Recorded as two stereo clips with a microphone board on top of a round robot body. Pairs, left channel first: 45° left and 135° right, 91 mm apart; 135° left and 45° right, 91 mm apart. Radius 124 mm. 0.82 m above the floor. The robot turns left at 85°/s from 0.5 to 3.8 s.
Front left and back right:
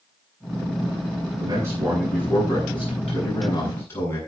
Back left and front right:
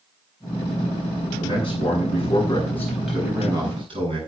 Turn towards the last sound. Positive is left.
turn(degrees=-20)